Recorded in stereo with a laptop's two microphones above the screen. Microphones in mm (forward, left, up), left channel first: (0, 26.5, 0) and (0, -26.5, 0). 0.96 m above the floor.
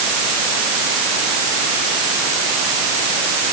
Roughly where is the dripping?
No dripping in this recording.